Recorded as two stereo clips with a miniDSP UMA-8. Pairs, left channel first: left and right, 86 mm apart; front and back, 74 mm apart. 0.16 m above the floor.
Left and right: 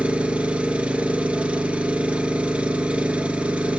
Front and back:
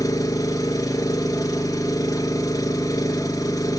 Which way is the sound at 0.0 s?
15° right.